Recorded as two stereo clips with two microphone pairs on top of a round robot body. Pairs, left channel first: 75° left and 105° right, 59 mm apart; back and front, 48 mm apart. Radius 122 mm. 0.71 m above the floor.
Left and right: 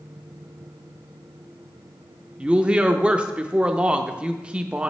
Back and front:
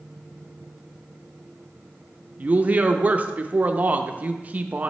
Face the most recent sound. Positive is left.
turn(degrees=-50)